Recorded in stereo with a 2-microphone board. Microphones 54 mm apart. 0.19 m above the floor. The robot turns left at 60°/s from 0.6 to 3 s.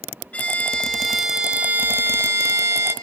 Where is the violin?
35° left, 2 m; by 2.9 s 105° right, 2 m.